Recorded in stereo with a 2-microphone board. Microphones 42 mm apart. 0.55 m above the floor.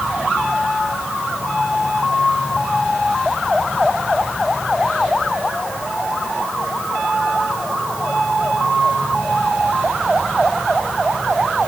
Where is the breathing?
No breathing in this recording.